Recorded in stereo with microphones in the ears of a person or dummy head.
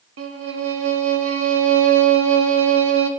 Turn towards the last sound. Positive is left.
turn(degrees=-80)